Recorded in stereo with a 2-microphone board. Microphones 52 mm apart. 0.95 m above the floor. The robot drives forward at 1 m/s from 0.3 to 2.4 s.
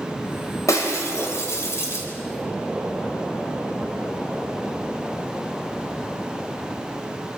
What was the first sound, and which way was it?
Breaking glass, 80° left.